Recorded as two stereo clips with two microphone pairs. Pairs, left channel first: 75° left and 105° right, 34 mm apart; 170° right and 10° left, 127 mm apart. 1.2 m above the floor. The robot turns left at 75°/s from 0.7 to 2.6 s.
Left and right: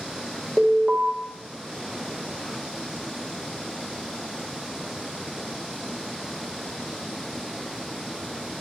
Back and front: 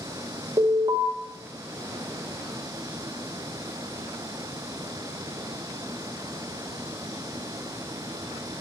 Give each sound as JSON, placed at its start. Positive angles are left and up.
{"t": 0.6, "sound": "an alarm", "azimuth_deg": -20, "distance_m": 2.0}